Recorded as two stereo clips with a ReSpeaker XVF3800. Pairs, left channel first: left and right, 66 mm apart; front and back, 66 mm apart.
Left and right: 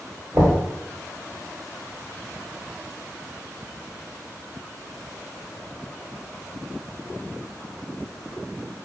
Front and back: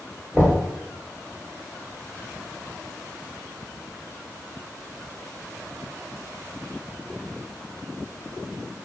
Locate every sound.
0.3 s knocking: 115° right, 1.6 m